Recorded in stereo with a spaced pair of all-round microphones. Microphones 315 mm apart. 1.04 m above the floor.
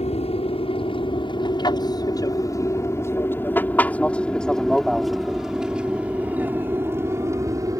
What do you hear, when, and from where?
0.0 s an aircraft: 20° left (ahead or behind); by 7.8 s 10° right (ahead or behind)